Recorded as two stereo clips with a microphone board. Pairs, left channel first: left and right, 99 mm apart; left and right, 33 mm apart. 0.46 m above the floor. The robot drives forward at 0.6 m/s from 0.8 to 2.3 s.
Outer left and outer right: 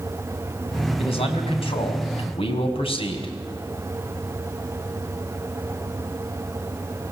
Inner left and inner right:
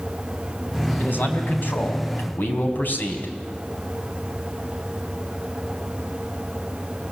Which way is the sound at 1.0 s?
70° left (ahead or behind).